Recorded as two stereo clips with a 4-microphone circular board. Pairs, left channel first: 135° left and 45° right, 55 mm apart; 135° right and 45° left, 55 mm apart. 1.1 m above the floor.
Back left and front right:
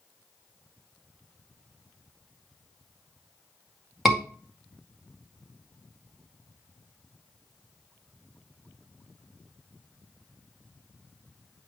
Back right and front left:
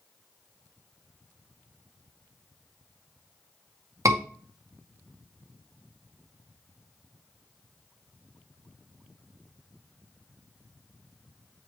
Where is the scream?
35° left, 2 m.